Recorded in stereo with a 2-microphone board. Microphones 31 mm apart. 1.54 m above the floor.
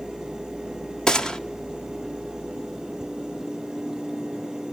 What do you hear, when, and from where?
1.1 s a gunshot: 25° left (ahead or behind), 1.5 m